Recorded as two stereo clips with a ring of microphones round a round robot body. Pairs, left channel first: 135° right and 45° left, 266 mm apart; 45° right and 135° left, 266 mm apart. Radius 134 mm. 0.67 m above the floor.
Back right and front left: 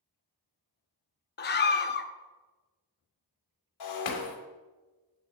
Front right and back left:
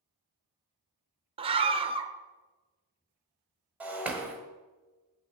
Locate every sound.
1.4 s a scream: 165° right, 0.7 m
3.8 s breaking glass: 140° right, 1.1 m